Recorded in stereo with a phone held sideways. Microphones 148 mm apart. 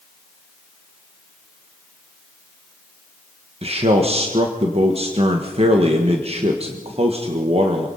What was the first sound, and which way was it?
A man speaking, 45° right (ahead or behind).